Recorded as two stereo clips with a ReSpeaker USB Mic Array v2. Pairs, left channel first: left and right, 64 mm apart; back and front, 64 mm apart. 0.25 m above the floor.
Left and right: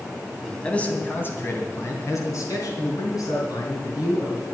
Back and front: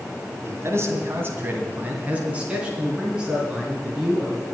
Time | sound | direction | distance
0.4 | a man speaking | 15° left | 2.5 m